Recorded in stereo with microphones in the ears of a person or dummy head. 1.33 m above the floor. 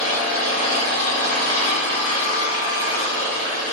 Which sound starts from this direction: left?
An engine running, at 0.0 s.